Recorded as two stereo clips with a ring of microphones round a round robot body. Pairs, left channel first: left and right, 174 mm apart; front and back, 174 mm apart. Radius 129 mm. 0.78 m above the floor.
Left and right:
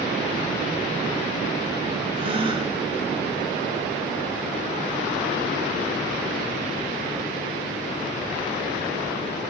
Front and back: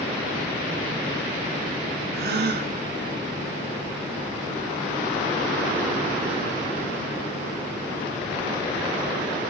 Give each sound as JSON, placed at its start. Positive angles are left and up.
{"t": 2.1, "sound": "a gasp", "azimuth_deg": -155, "distance_m": 2.5}